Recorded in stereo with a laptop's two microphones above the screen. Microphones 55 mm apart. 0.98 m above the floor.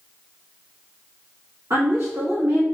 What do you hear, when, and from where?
1.7 s a woman speaking: 60° right (ahead or behind), 1.6 m